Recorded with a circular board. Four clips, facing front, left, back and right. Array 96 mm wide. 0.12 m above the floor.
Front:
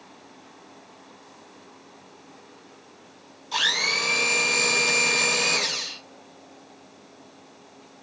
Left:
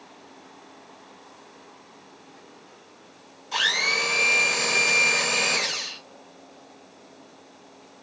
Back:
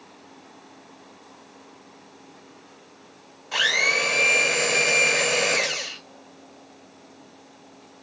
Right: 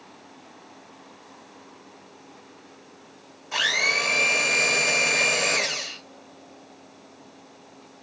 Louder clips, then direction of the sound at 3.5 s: Even, back 3 dB; 160° right.